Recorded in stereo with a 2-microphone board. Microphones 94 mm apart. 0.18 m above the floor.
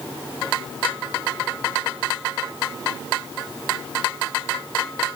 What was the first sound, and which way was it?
Only background noise.